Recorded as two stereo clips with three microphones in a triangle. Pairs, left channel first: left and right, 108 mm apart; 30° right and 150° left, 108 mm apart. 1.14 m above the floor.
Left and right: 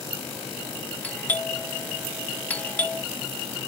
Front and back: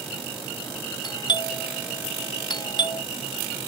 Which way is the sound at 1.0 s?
15° left.